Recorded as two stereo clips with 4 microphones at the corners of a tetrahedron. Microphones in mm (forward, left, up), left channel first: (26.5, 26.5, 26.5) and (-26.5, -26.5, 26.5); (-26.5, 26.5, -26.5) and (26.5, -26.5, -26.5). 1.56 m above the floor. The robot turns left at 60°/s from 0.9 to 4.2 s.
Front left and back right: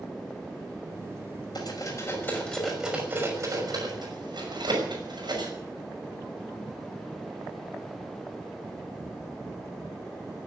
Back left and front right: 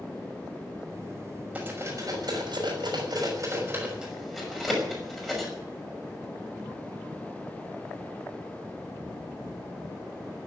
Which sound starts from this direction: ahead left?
Cutlery clinking, at 1.6 s.